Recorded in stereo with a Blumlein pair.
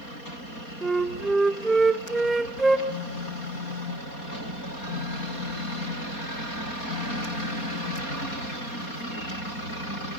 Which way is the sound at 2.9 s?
50° left.